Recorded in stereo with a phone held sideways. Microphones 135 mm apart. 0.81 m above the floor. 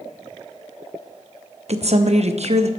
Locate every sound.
1.7 s a woman speaking: 55° right (ahead or behind), 0.7 m